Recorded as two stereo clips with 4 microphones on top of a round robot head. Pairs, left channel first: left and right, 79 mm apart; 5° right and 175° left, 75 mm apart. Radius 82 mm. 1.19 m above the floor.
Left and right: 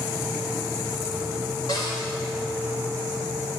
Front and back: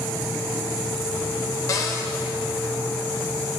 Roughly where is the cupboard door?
Ahead left.